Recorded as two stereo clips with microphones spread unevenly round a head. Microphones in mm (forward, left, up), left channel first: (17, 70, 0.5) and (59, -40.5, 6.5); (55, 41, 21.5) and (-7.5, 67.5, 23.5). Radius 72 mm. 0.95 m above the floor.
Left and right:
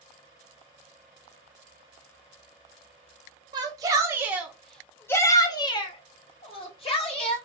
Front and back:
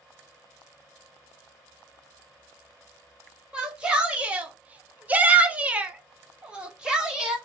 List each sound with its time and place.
3.5 s a shout: 125° right, 0.9 m; by 7.4 s 80° left, 1.4 m